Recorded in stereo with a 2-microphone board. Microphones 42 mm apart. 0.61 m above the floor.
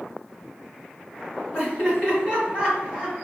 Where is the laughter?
40° left (ahead or behind), 1.9 m.